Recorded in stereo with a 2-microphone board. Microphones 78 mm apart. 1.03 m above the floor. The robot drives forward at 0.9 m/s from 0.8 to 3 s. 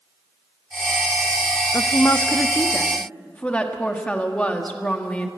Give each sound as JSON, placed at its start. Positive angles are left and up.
{"t": 1.7, "sound": "a woman speaking", "side_deg": 55, "distance_m": 0.5}